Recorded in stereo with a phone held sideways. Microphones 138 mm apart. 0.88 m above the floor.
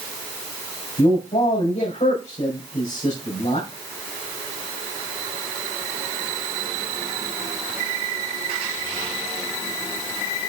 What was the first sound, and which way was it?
A man speaking, 60° left (ahead or behind).